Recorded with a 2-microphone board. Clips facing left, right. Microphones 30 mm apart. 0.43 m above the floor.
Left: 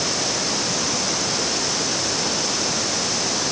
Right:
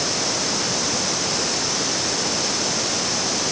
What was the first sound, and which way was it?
Only background noise.